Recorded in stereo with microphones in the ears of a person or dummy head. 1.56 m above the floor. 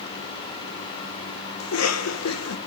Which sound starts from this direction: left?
A cough, at 1.6 s.